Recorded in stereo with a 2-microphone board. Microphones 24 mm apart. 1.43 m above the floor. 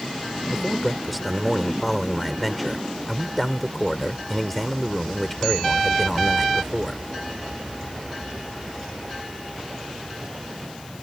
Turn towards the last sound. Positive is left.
turn(degrees=5)  # may be behind; listen again after turning